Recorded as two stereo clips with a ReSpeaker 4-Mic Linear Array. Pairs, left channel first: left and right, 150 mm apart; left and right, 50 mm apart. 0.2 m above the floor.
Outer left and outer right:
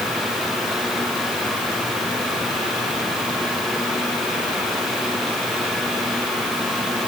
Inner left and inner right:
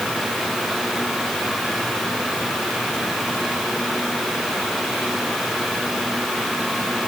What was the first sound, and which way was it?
Only background noise.